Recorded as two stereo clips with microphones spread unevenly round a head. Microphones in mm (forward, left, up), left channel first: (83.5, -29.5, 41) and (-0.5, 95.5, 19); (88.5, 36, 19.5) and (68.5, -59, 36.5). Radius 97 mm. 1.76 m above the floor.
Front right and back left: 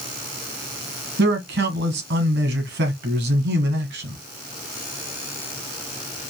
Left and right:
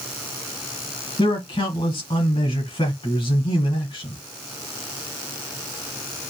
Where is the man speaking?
140° left, 2 m.